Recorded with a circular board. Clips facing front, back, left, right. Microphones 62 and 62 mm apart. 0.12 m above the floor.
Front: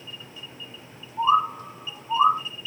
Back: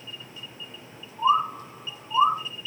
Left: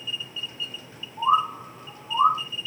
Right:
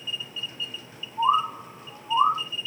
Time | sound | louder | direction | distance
1.2 | a bird | front 1 dB, left 1 dB | 5° right | 2 m